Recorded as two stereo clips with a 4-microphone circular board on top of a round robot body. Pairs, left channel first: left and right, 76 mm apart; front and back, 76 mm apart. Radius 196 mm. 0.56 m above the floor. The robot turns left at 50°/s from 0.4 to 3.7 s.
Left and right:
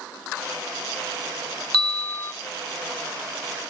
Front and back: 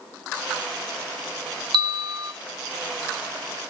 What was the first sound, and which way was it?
A bell, 170° left.